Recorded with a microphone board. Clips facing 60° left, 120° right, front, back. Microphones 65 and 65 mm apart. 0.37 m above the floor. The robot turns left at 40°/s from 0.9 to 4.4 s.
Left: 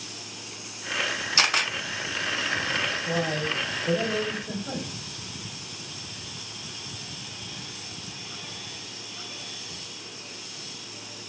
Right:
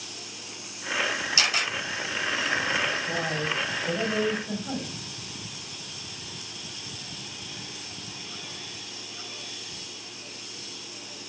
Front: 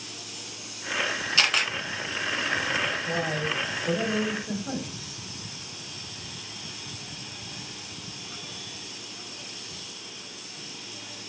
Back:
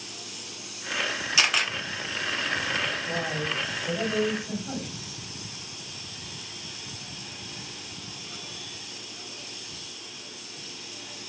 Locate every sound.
1.4 s a camera shutter: 100° left, 0.7 m; by 1.7 s 85° left, 0.7 m
3.0 s a man speaking: 30° left, 1.8 m; by 4.9 s 20° right, 1.8 m